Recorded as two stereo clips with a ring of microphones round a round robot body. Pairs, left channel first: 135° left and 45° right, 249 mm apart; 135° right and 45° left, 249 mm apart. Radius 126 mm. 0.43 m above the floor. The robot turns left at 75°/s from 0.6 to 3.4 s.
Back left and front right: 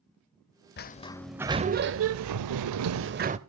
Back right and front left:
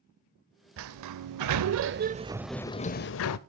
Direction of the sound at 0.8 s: 85° left.